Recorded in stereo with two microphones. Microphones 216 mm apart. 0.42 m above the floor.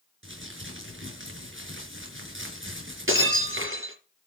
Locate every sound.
0.2 s crumpling: 65° right (ahead or behind), 5.5 m
3.1 s breaking glass: 70° right (ahead or behind), 5.5 m